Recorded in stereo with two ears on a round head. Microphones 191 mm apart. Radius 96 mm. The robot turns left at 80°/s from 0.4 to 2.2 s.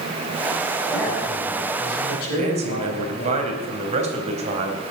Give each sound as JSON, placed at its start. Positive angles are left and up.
{"t": 0.9, "sound": "a man speaking", "azimuth_deg": 180, "distance_m": 4.5}
{"t": 2.4, "sound": "a man speaking", "side_deg": -35, "distance_m": 3.5}